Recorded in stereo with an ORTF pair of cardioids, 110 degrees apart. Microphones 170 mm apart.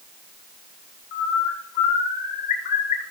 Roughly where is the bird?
Left.